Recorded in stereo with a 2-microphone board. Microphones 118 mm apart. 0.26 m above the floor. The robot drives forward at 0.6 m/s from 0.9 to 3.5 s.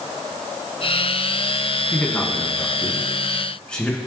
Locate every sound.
1.9 s a man speaking: 10° left (ahead or behind), 1.9 m